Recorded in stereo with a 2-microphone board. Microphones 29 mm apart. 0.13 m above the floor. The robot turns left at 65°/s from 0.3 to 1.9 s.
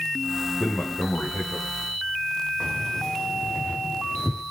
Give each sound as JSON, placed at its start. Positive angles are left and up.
{"t": 0.6, "sound": "a man speaking", "azimuth_deg": 130, "distance_m": 7.0}
{"t": 2.6, "sound": "keys jangling", "side_deg": 50, "distance_m": 8.0}